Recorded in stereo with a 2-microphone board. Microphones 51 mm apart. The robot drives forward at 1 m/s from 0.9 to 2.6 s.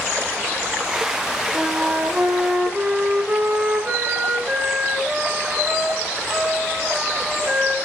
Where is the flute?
25° right (ahead or behind), 4.5 m; by 7.8 s 20° right (ahead or behind), 5.5 m.